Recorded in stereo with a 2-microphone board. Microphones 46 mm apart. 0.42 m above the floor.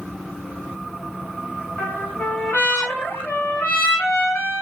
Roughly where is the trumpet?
Left.